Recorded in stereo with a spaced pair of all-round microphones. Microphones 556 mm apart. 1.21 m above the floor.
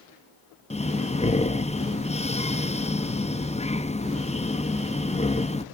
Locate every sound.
0.7 s breathing: 10° left (ahead or behind), 0.5 m